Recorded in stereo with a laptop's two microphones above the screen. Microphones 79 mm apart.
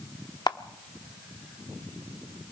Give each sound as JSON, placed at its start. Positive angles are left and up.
{"t": 0.5, "sound": "a camera shutter", "side_deg": 65, "distance_m": 0.9}